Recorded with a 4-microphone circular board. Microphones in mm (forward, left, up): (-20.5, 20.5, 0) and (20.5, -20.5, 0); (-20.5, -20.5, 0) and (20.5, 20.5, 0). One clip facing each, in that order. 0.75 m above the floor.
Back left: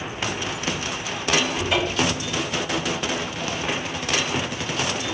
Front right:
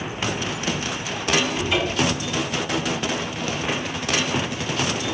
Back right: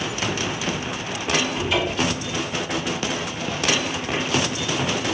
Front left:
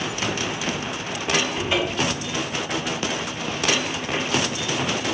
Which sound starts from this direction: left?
A cupboard door, at 1.5 s.